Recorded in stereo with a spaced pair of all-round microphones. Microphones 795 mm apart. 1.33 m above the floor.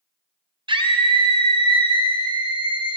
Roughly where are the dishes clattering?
I don't hear dishes clattering.